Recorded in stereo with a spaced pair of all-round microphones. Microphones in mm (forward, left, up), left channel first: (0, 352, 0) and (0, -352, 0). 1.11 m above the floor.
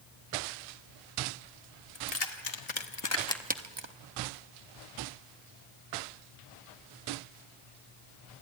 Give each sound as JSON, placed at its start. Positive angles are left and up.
{"t": 1.9, "sound": "keys jangling", "side_deg": 60, "distance_m": 2.0}